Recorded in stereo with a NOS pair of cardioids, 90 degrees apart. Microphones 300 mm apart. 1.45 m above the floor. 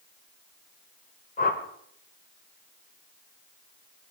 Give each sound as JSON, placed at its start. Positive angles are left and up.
{"t": 1.4, "sound": "a whoosh", "azimuth_deg": 25, "distance_m": 3.5}